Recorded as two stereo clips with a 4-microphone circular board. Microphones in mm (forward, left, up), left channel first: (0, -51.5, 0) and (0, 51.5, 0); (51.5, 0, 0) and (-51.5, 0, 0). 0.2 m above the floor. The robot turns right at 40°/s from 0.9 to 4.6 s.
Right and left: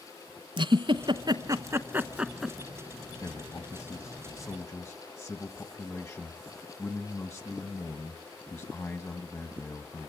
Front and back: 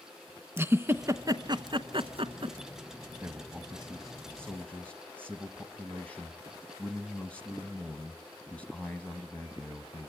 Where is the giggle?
115° left, 0.9 m; by 2.6 s straight behind, 0.9 m.